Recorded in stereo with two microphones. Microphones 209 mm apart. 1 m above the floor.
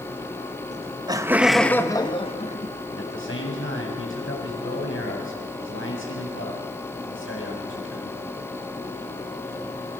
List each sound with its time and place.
0.7 s laughter: 35° right (ahead or behind), 1.4 m; by 2.8 s 40° left (ahead or behind), 1.9 m
2.9 s a man speaking: 75° left (ahead or behind), 7.5 m